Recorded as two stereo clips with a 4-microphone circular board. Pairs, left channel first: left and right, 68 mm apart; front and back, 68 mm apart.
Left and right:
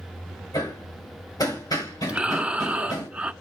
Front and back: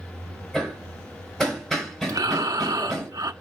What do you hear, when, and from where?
0.5 s hammering: 85° left, 4.5 m
2.1 s breathing: 160° right, 0.7 m